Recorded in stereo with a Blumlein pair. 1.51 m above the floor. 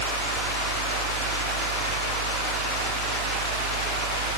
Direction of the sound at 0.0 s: 45° right.